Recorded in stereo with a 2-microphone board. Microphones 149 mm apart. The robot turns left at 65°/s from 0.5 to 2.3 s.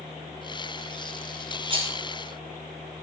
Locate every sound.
1.7 s a rattle: 30° right (ahead or behind), 1.0 m; by 1.9 s 45° right (ahead or behind), 1.0 m